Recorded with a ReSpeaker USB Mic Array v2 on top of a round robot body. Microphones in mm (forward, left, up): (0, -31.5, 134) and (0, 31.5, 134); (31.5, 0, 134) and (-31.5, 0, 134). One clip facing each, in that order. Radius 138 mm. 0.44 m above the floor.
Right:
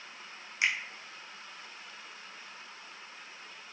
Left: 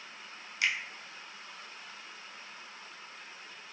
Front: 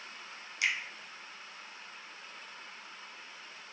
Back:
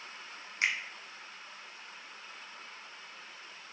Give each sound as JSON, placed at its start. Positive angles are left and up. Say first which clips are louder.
{"t": 0.6, "sound": "a finger snap", "louder": "right 1 dB, back 1 dB", "azimuth_deg": -145, "distance_m": 0.9}